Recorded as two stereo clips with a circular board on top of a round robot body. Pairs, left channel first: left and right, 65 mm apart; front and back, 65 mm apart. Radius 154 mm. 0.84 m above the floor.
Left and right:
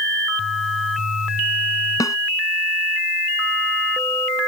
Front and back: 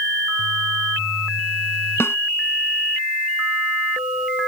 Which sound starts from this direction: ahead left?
A snare drum, at 2.0 s.